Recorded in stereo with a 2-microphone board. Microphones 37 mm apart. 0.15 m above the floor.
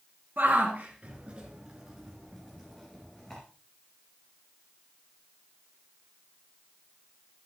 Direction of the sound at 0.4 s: 55° right (ahead or behind).